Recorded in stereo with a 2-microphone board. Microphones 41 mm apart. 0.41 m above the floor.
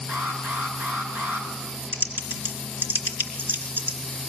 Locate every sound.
0.1 s an alarm: 40° right (ahead or behind), 5.5 m
1.9 s typing on a keyboard: 55° right (ahead or behind), 3 m